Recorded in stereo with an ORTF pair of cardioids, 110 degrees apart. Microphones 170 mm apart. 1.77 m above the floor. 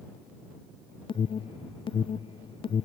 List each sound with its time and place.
1.1 s an alarm: 30° left